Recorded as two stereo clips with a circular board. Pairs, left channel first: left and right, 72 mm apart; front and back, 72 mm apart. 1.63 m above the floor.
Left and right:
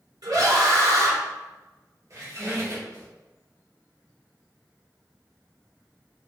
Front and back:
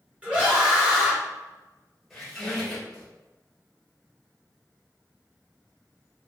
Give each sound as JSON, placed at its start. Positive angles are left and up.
{"t": 0.2, "sound": "a scream", "azimuth_deg": -110, "distance_m": 1.7}
{"t": 2.1, "sound": "a squeak", "azimuth_deg": -90, "distance_m": 1.4}